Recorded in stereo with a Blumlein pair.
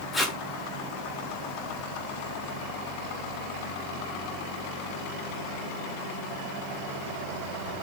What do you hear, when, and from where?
0.1 s tape being pulled: 5° left, 1.0 m